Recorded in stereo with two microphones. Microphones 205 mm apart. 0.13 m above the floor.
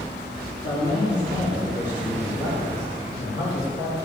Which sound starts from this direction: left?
A man speaking, at 0.6 s.